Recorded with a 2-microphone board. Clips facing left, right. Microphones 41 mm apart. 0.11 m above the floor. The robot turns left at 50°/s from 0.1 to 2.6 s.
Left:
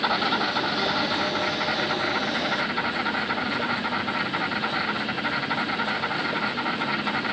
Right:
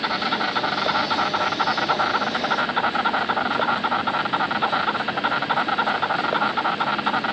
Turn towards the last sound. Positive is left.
turn(degrees=-120)